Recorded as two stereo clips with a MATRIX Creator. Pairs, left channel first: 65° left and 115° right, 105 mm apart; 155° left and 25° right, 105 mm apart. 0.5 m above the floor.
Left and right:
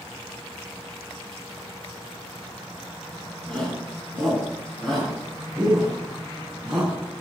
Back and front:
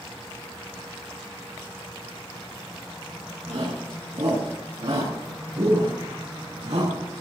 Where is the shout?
10° right, 7.5 m; by 7.2 s 30° right, 4.5 m.